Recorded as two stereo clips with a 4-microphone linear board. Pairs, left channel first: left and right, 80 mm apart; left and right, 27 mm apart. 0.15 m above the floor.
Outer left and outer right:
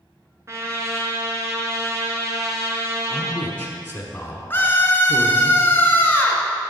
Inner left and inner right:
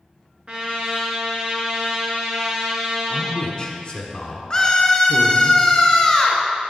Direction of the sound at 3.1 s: 25° left (ahead or behind).